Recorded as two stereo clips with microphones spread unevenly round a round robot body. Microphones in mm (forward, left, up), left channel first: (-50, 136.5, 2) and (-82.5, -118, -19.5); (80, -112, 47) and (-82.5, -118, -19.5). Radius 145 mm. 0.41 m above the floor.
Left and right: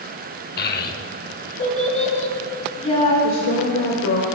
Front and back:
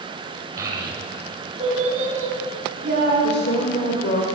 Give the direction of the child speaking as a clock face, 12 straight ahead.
8 o'clock.